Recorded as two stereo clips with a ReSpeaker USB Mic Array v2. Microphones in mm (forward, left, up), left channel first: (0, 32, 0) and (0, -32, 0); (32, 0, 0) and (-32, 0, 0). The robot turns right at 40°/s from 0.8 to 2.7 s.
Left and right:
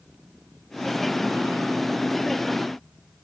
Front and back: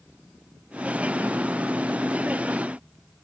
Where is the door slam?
I don't hear a door slam.